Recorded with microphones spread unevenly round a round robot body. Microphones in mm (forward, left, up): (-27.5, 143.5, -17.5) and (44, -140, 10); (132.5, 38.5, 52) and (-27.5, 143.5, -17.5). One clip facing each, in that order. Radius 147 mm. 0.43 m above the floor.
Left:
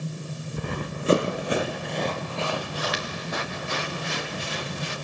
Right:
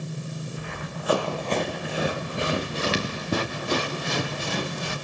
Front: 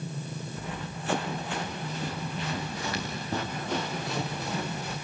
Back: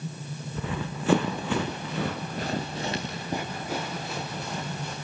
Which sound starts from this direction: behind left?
Running footsteps, at 0.6 s.